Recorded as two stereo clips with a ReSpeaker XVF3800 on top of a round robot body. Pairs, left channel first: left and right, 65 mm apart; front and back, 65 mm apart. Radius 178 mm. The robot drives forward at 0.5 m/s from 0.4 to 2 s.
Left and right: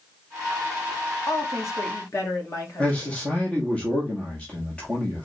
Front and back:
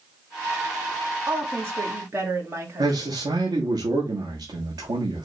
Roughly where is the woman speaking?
Behind left.